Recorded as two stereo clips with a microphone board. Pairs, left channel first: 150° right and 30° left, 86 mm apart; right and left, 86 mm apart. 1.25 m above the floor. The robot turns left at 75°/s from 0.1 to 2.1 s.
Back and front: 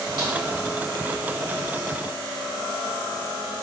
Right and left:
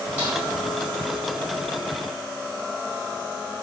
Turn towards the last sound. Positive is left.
turn(degrees=-115)